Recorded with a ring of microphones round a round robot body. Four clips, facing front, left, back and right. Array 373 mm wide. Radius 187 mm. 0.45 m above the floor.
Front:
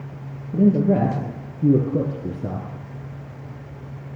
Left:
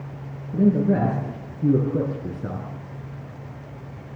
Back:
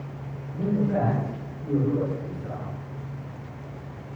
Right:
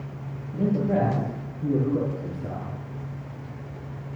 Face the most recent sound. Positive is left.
turn(degrees=25)